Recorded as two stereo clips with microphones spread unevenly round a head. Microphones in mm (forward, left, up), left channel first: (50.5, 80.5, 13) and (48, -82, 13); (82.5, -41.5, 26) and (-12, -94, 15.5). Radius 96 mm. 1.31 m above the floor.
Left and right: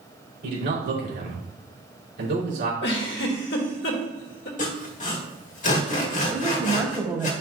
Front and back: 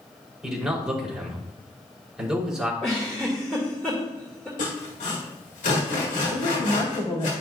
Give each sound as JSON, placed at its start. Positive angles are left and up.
{"t": 0.4, "sound": "a man speaking", "azimuth_deg": -70, "distance_m": 3.5}
{"t": 2.8, "sound": "a giggle", "azimuth_deg": 115, "distance_m": 1.6}
{"t": 4.6, "sound": "sawing", "azimuth_deg": 45, "distance_m": 1.8}
{"t": 6.3, "sound": "a woman speaking", "azimuth_deg": -10, "distance_m": 1.7}